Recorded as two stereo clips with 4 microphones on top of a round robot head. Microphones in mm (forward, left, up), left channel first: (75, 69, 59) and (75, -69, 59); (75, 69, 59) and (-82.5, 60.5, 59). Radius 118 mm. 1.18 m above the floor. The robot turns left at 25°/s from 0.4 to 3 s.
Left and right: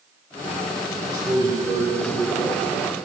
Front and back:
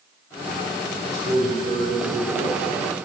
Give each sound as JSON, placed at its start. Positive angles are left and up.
{"t": 1.1, "sound": "a man speaking", "azimuth_deg": -140, "distance_m": 5.0}